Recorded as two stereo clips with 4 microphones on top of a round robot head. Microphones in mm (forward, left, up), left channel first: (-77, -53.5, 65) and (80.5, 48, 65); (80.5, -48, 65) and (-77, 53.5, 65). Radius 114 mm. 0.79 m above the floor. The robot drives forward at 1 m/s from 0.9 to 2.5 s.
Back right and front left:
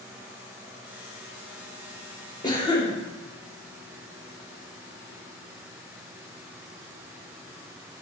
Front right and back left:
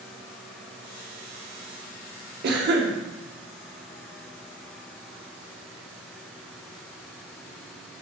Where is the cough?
145° left, 0.7 m; by 2.9 s 150° left, 0.7 m.